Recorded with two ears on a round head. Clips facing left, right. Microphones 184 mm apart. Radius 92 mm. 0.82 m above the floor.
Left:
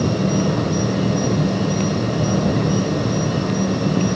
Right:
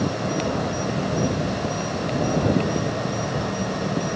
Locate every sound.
0.0 s an insect: 50° left (ahead or behind)